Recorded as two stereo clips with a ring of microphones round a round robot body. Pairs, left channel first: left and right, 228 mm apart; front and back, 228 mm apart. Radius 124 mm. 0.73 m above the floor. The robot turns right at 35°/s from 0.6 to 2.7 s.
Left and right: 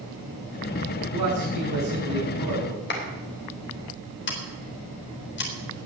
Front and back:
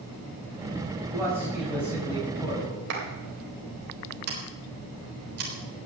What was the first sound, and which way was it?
A man speaking, 105° right.